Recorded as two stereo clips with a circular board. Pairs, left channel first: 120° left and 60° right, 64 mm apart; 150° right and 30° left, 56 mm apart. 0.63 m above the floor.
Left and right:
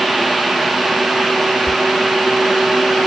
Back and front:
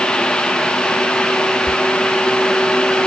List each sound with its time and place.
1.7 s whispering: 50° right, 3 m